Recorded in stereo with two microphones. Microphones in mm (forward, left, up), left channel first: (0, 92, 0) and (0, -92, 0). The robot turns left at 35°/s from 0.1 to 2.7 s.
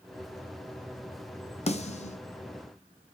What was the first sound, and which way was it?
A snare drum, 35° left (ahead or behind).